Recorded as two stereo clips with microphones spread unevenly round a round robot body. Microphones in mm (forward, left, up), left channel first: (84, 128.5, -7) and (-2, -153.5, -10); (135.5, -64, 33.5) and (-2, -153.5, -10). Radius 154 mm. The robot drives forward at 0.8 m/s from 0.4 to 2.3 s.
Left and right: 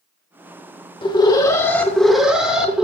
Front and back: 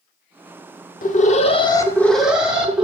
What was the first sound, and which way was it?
An alarm, 5° left.